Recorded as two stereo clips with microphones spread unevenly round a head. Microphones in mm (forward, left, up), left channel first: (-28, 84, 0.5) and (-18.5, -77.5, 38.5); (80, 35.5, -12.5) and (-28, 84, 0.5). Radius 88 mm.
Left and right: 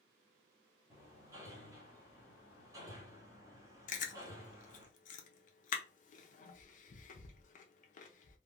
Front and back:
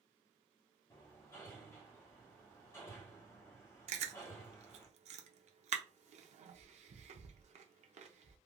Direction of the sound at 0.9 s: 85° right.